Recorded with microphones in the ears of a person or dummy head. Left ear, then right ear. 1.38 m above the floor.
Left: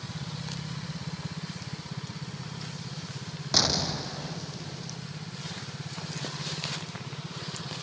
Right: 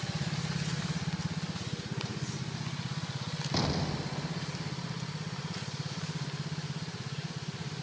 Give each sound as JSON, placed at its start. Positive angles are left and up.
{"t": 3.5, "sound": "an explosion", "side_deg": 40}